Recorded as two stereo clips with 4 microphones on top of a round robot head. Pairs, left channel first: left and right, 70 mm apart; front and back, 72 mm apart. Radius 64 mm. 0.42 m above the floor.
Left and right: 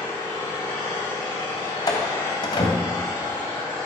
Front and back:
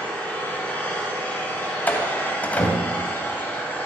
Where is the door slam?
65° left, 2.5 m.